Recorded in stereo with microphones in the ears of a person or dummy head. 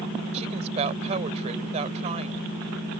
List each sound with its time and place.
0.3 s a woman speaking: 35° right (ahead or behind)